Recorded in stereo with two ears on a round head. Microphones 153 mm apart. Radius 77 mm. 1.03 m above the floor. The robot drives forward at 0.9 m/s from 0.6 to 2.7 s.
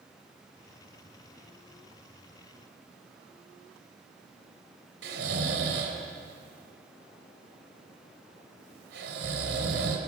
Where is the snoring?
65° right (ahead or behind), 3.5 m.